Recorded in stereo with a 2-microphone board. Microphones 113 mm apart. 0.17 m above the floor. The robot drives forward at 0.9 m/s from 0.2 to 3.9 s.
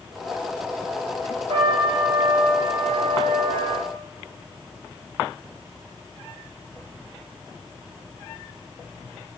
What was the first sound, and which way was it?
A trumpet, 50° right (ahead or behind).